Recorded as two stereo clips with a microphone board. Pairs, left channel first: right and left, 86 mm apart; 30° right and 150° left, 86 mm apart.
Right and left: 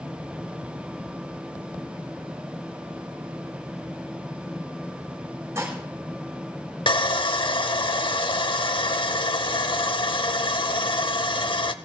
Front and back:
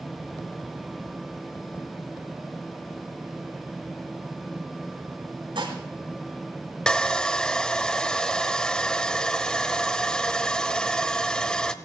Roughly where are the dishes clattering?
Behind left.